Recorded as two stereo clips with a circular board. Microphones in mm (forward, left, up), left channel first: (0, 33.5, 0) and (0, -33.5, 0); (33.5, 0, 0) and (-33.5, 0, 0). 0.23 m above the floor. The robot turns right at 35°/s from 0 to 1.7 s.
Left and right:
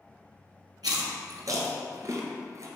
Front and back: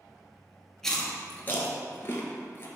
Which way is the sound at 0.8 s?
85° right.